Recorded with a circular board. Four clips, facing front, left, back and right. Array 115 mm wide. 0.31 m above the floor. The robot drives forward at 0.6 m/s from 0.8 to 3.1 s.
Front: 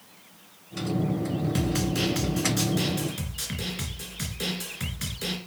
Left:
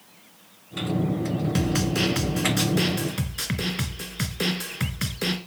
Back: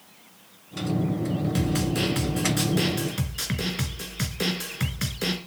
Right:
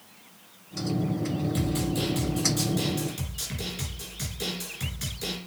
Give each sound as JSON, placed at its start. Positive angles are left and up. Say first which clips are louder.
{"t": 1.6, "sound": "a snare drum", "louder": "left 3 dB, back 2 dB", "azimuth_deg": 90, "distance_m": 1.9}